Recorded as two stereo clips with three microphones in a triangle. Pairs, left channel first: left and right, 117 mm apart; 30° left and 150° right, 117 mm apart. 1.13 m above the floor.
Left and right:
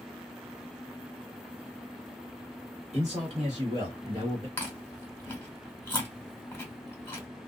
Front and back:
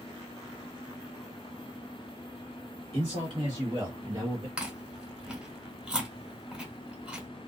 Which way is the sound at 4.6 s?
140° left.